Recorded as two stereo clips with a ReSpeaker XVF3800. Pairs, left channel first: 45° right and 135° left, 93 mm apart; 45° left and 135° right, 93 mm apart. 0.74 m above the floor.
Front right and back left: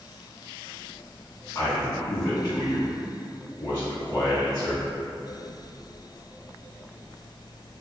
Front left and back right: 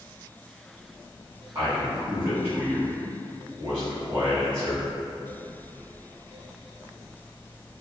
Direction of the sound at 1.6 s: 90° right.